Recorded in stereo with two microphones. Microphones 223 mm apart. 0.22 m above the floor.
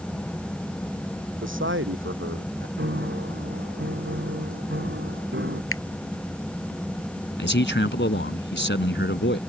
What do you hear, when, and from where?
1.4 s a man speaking: 60° right (ahead or behind); by 2.7 s 65° right (ahead or behind)
2.8 s a piano: 55° right (ahead or behind)
5.7 s a finger snap: 75° left (ahead or behind)
7.4 s a man speaking: 55° left (ahead or behind)